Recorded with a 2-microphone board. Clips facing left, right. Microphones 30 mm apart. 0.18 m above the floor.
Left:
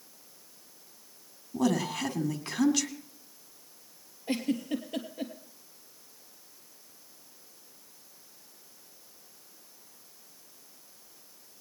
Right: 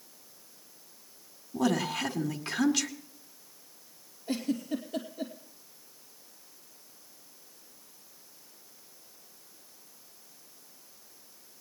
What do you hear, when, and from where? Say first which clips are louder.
1.5 s a woman speaking: even; 5° right (ahead or behind), 1.5 m
4.3 s a giggle: left 1 dB; 50° left (ahead or behind), 2.5 m